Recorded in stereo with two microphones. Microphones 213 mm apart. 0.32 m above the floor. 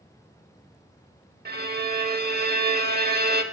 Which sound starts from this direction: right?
A violin, at 1.4 s.